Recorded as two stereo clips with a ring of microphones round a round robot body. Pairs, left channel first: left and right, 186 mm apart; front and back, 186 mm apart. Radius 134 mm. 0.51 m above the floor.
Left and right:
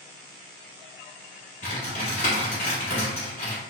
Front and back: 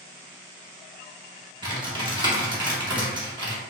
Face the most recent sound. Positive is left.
turn(degrees=130)